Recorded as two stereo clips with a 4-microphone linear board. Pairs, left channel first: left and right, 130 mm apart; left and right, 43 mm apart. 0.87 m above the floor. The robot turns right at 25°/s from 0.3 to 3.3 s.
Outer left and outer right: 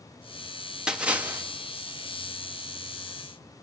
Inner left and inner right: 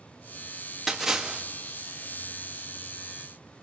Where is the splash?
5° right (ahead or behind), 1.6 m; by 1.4 s 15° right (ahead or behind), 1.6 m.